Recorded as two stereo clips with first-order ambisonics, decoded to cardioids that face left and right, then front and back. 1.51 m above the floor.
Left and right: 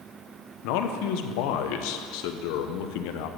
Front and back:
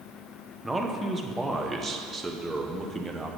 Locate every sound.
0.6 s a man speaking: 95° left, 0.8 m